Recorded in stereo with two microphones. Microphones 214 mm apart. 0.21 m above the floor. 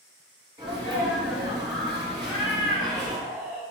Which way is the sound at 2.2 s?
5° right (ahead or behind).